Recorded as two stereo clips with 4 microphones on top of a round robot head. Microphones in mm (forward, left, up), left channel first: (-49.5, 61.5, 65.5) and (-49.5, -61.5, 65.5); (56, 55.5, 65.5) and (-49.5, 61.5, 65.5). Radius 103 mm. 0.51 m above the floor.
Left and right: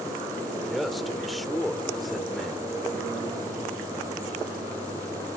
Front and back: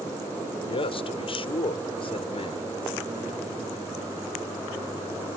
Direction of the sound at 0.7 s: Straight ahead.